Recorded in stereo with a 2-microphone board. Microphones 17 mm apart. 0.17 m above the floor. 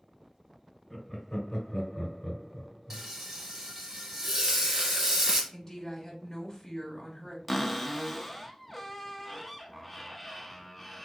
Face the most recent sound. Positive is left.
turn(degrees=0)  # may be behind; listen again after turning